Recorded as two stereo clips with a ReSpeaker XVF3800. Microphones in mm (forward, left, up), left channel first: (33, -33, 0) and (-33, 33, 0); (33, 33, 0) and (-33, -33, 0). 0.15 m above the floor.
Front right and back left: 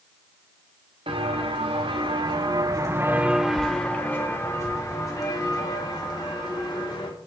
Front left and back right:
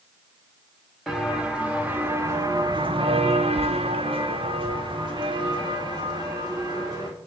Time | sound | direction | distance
1.1 | footsteps | 140° left | 1.8 m